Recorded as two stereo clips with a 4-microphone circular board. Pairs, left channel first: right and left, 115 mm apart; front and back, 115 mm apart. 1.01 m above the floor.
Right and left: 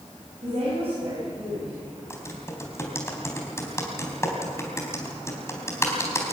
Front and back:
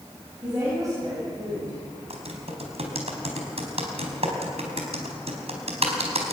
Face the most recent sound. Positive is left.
turn(degrees=-155)